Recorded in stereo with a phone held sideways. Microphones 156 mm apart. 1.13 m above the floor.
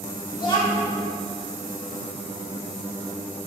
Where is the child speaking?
30° left (ahead or behind), 1.4 m.